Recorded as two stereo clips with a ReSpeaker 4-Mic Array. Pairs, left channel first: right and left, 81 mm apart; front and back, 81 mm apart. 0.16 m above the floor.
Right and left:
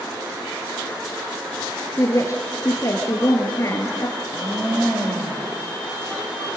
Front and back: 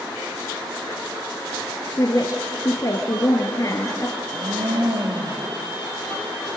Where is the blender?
160° left, 4.5 m.